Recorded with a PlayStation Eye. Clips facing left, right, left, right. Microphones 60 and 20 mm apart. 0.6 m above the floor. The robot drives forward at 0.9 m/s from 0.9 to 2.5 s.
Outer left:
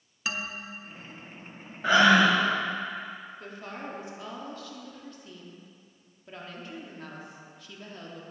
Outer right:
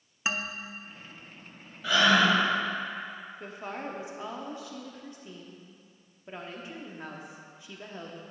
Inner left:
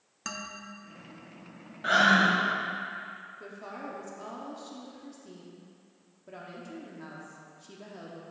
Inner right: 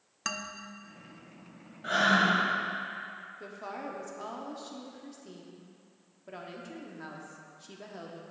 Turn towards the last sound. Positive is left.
turn(degrees=-20)  # may be behind; listen again after turning